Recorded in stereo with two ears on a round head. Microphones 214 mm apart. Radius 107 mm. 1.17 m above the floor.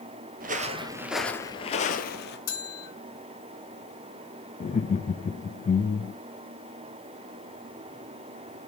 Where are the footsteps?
40° right (ahead or behind), 1.4 m; by 2.4 s 45° left (ahead or behind), 1.8 m.